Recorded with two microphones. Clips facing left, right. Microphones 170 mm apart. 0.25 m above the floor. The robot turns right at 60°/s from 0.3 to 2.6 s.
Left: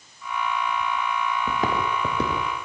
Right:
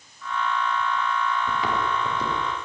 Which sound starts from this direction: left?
Footsteps, at 1.5 s.